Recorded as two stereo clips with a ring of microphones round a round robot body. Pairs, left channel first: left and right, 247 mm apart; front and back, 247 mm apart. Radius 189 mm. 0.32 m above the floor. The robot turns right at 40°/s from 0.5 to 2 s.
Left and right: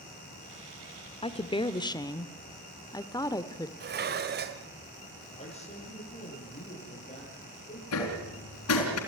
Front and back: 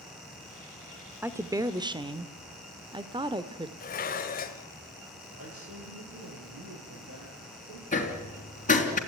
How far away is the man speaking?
About 10 m.